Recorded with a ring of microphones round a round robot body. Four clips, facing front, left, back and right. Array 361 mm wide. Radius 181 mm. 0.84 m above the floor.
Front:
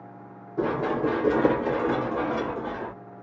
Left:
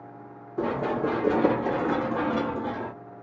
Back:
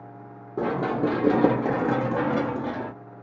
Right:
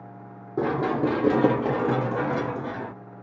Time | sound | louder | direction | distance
0.6 | running footsteps | right 3 dB, even | 125° right | 1.6 m